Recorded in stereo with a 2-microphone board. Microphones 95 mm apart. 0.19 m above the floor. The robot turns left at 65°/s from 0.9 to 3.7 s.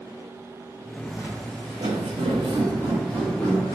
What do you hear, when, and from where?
1.1 s footsteps: 10° left (ahead or behind), 0.6 m; by 3.8 s 35° left (ahead or behind), 1.8 m